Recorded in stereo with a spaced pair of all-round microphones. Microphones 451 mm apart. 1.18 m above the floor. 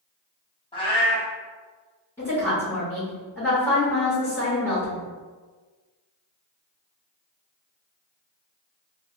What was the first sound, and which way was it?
A cat meowing, 10° left (ahead or behind).